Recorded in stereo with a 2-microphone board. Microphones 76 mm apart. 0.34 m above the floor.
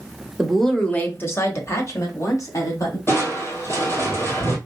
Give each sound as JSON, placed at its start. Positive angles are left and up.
{"t": 0.4, "sound": "a woman speaking", "side_deg": -5, "distance_m": 0.9}
{"t": 3.1, "sound": "crushing", "side_deg": 30, "distance_m": 1.7}